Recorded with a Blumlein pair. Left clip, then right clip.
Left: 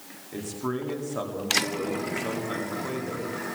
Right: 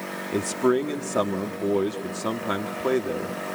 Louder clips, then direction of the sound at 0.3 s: Right 9 dB; 65° right.